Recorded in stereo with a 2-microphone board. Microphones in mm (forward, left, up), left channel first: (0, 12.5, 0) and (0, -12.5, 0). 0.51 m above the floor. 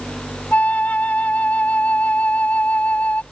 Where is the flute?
75° left (ahead or behind).